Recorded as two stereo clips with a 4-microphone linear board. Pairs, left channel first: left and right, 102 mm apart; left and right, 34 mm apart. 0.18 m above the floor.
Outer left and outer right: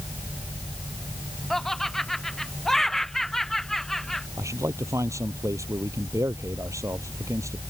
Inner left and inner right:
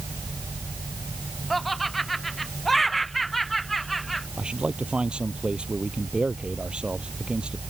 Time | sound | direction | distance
1.5 | laughter | 5° left (ahead or behind) | ?
4.4 | a man speaking | 30° right (ahead or behind) | ?